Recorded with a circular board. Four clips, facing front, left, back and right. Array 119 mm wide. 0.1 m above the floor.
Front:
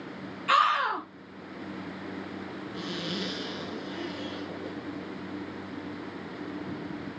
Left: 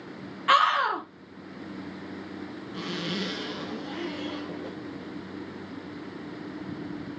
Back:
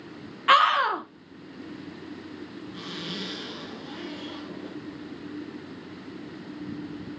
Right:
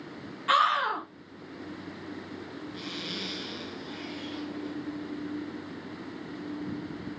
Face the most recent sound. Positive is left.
turn(degrees=100)